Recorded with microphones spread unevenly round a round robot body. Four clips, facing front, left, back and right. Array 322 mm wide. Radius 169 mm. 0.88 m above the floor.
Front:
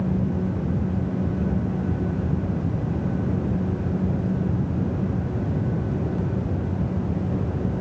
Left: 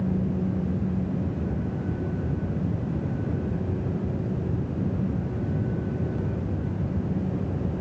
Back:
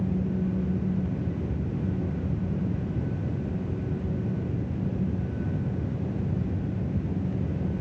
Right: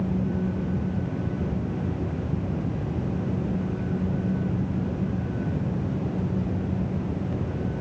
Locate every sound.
Only background noise.